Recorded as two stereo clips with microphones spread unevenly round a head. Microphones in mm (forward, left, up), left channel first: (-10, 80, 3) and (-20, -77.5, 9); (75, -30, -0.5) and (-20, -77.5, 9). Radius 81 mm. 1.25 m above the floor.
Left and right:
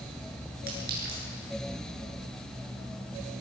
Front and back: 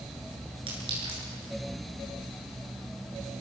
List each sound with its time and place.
0.7 s a clink: 120° right, 9.5 m